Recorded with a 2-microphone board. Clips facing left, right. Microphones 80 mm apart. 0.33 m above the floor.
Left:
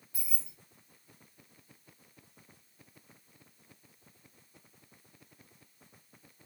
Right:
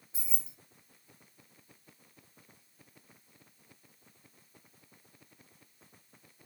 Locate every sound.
0.1 s keys jangling: 25° right (ahead or behind), 1.3 m